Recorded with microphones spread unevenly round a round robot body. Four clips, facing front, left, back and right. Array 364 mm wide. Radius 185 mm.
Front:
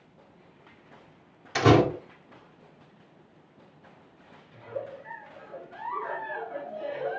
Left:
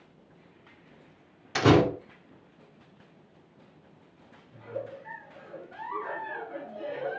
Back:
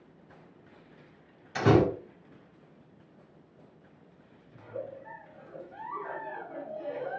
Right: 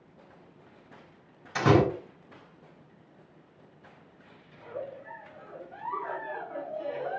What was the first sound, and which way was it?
A door slam, 55° left.